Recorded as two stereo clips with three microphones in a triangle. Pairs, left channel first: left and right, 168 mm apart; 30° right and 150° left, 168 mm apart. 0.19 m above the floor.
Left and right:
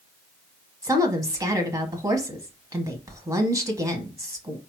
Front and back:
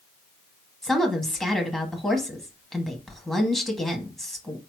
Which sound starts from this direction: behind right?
A woman speaking, at 0.8 s.